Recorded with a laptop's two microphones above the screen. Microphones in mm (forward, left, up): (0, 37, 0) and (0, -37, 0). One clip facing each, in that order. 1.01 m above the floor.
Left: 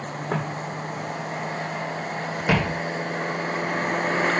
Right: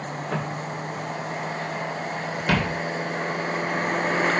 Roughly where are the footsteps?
Left.